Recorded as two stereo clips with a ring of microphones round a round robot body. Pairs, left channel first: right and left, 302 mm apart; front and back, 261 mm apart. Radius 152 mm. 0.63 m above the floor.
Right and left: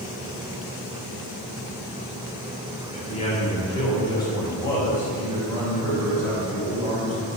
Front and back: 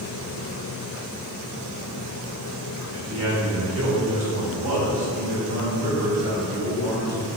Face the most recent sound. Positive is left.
turn(degrees=180)